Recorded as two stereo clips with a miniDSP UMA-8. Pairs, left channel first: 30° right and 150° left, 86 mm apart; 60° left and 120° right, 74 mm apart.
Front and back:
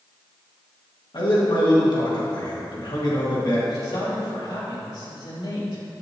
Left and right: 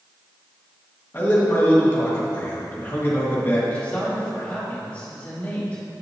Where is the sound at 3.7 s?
15° right, 2.5 m.